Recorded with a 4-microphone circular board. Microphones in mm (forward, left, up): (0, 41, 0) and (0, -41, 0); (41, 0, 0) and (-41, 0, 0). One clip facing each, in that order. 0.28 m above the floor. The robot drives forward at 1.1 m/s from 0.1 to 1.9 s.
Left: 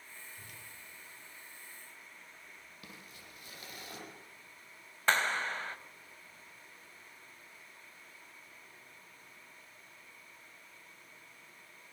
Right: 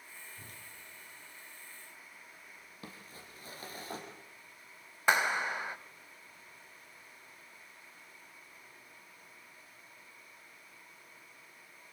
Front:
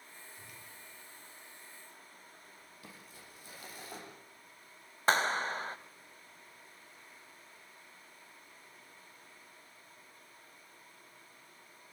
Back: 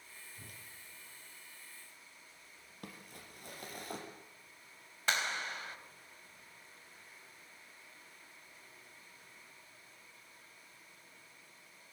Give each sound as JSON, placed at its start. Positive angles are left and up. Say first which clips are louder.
{"t": 0.3, "sound": "a whoosh", "louder": "right 1 dB, front 1 dB", "azimuth_deg": -140, "distance_m": 6.0}
{"t": 2.8, "sound": "crumpling", "louder": "right 4 dB, back 4 dB", "azimuth_deg": -145, "distance_m": 6.0}
{"t": 5.1, "sound": "a clap", "louder": "right 2 dB, front 7 dB", "azimuth_deg": -20, "distance_m": 1.0}